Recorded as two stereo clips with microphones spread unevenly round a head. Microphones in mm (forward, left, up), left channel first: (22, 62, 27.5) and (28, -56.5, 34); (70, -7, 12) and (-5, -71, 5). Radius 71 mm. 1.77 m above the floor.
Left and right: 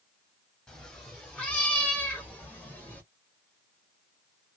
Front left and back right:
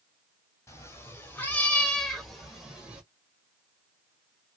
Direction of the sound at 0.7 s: 10° left.